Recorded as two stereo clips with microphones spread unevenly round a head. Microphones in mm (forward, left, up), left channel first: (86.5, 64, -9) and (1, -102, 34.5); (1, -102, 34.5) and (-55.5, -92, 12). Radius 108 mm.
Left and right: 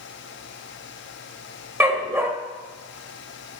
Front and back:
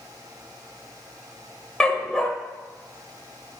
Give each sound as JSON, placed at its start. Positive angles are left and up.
{"t": 1.8, "sound": "a dog barking", "azimuth_deg": -55, "distance_m": 1.4}